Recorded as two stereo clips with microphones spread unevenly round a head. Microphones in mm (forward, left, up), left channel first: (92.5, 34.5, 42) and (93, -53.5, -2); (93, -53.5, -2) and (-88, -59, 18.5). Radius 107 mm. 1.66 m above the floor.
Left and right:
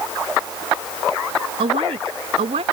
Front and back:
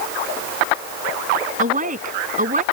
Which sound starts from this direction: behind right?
A woman speaking, at 1.6 s.